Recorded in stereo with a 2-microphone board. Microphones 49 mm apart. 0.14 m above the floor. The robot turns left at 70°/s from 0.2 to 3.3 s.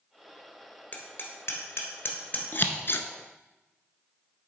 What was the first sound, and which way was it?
Hammering, 40° left (ahead or behind).